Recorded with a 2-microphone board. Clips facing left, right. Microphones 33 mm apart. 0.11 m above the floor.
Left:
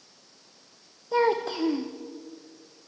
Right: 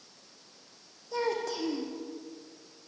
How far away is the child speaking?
About 3.5 m.